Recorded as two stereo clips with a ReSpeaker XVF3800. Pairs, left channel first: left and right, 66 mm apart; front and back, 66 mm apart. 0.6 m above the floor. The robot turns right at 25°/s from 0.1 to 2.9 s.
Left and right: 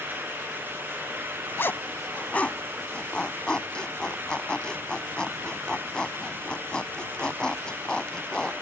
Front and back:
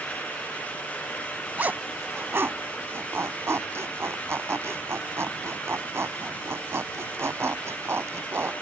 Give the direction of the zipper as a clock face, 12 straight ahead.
8 o'clock.